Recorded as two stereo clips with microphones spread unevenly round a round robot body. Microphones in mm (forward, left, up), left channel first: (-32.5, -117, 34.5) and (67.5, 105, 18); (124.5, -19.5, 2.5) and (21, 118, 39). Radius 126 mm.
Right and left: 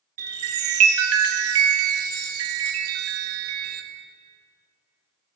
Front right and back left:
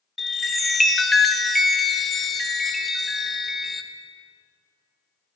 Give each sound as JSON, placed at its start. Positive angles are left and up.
{"t": 0.2, "sound": "a chime", "azimuth_deg": 45, "distance_m": 0.7}